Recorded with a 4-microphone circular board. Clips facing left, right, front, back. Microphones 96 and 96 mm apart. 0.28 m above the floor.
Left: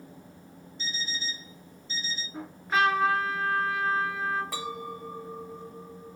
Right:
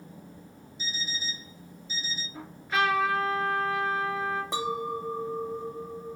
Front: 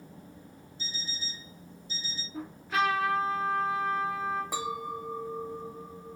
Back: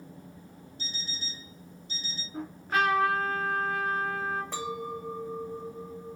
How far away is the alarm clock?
About 1.3 m.